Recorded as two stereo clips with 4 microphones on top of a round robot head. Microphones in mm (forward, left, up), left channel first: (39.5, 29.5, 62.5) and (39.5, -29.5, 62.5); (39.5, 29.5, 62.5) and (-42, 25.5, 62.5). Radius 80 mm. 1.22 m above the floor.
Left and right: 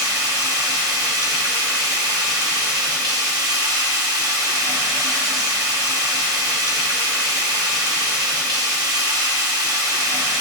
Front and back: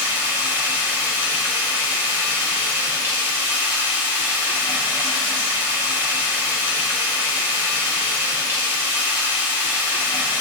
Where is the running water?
105° right, 0.7 m.